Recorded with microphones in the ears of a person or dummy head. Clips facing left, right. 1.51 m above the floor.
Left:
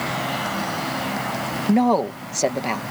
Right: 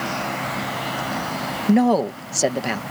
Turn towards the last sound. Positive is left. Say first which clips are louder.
# right 1 dB
turn(degrees=-15)  # may be behind; listen again after turning